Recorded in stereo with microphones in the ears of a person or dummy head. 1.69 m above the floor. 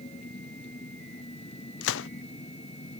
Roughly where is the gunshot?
Left.